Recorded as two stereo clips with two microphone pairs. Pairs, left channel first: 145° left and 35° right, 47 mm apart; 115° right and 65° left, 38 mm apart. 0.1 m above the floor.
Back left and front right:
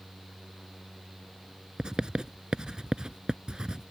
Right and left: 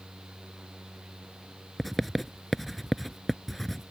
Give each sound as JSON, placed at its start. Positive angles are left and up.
{"t": 1.8, "sound": "writing", "azimuth_deg": -25}